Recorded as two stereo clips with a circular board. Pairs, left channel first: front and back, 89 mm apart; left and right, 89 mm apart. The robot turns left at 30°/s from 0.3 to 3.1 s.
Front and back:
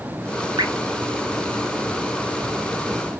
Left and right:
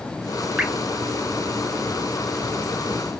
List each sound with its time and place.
0.6 s dripping: 165° right, 0.6 m; by 0.7 s 170° right, 0.6 m